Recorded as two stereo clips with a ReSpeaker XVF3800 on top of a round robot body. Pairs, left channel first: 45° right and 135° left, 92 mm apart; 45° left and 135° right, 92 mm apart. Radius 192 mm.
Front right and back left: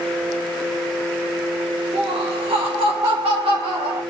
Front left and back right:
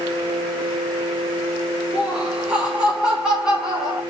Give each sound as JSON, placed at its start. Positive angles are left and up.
{"t": 1.9, "sound": "laughter", "azimuth_deg": 150, "distance_m": 1.7}